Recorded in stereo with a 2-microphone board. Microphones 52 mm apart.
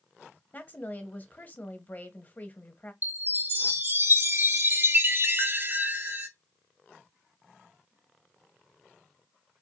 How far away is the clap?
No clap in this recording.